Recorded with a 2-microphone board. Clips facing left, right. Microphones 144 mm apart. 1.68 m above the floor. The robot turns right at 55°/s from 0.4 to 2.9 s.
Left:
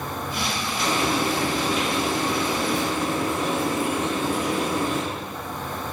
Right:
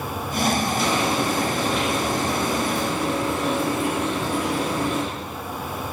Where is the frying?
175° right, 4.5 m; by 5.0 s 60° right, 4.5 m.